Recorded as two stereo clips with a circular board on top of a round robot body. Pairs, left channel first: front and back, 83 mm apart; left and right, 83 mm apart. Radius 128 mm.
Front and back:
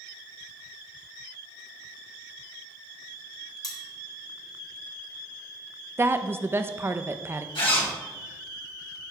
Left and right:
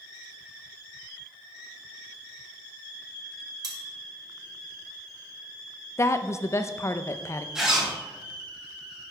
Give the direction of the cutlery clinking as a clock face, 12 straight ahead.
2 o'clock.